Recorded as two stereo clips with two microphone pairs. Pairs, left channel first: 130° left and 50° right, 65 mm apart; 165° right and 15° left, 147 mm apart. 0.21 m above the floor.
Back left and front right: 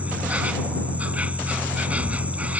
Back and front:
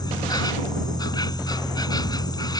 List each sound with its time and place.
0.0 s an insect: 110° right